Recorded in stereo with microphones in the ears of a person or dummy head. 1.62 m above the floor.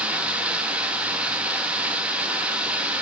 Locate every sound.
0.0 s running water: 10° right (ahead or behind), 2.5 m